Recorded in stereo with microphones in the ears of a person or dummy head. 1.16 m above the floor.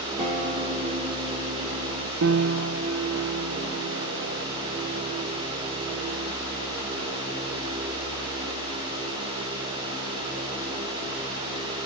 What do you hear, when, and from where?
0.2 s a guitar: 30° right (ahead or behind), 2 m
2.2 s a piano: 60° right (ahead or behind), 0.9 m